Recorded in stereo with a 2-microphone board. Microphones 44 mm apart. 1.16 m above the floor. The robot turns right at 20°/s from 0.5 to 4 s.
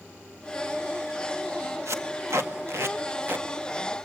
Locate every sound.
1.9 s tape being pulled: 75° right (ahead or behind), 1.9 m; by 3.5 s 45° right (ahead or behind), 1.9 m